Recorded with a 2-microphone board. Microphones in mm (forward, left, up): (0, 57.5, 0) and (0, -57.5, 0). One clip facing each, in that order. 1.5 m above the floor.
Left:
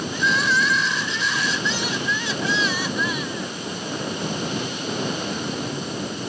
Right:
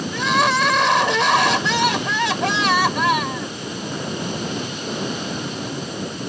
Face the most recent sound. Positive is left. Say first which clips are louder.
# right 4 dB
turn(degrees=-70)  # may be behind; listen again after turning